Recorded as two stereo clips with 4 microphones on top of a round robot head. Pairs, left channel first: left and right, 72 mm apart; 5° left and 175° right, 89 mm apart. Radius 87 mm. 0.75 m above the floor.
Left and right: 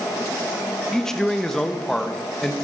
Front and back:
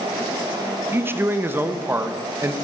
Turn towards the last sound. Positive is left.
turn(degrees=165)